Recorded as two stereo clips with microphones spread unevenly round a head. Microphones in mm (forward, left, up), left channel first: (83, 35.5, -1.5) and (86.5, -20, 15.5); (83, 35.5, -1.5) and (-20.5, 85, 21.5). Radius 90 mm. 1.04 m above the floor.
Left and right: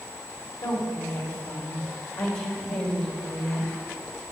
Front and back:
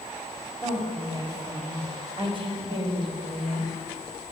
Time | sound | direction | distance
0.6 | a woman speaking | 95° left | 5.5 m